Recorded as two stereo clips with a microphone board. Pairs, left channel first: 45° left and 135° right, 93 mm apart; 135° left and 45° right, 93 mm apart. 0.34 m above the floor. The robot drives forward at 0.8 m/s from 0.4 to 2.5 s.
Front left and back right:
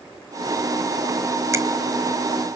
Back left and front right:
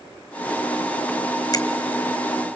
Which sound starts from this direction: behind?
A finger snap, at 1.5 s.